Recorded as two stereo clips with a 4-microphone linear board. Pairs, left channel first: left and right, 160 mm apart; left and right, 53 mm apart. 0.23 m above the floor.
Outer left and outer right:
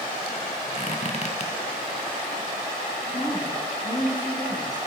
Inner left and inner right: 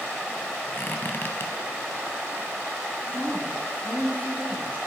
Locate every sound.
0.7 s a squeak: 45° left (ahead or behind), 1.0 m
3.1 s a woman speaking: 25° left (ahead or behind), 2 m